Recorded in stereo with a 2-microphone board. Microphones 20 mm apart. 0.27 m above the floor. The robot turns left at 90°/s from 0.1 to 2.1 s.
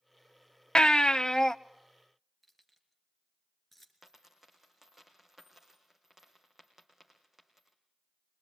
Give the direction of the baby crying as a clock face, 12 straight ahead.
9 o'clock.